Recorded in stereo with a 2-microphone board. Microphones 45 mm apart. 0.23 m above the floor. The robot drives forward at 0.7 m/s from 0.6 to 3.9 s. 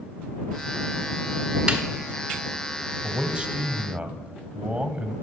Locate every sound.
1.7 s a snare drum: 20° right (ahead or behind), 1.4 m; by 1.8 s 15° right (ahead or behind), 1.5 m
3.0 s a man speaking: 25° right (ahead or behind), 1.2 m